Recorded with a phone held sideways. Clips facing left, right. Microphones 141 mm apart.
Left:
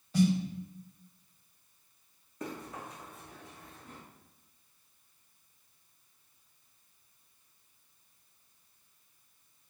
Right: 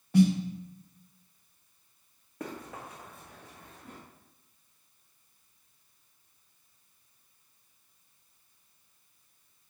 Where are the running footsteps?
60° right (ahead or behind), 5 m.